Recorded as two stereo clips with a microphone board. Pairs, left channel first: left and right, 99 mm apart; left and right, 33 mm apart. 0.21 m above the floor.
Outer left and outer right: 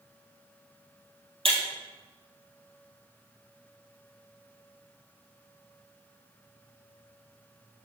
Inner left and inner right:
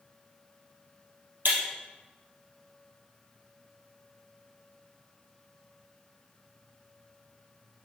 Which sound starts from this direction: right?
Breaking glass, at 1.4 s.